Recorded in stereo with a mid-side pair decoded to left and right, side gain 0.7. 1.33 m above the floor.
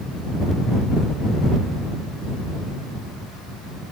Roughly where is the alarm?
No alarm in this recording.